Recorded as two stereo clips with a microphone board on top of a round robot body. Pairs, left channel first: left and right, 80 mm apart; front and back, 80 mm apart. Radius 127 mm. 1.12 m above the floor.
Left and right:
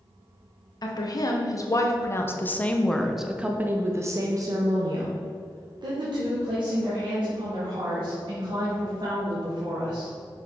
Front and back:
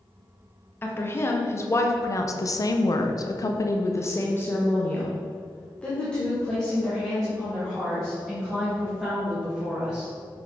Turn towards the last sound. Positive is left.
turn(degrees=-90)